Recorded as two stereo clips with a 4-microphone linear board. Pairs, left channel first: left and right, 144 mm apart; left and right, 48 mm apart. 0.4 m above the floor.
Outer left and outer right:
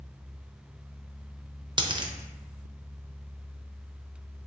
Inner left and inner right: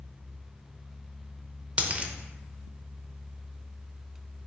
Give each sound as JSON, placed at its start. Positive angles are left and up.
{"t": 1.8, "sound": "a dropped coin", "side_deg": -30, "distance_m": 0.5}